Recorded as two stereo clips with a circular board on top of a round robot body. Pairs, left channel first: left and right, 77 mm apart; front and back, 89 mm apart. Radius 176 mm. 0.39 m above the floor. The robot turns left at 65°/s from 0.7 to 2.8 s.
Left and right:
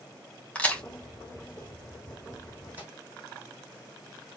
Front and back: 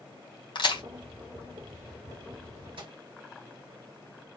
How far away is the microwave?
About 3 m.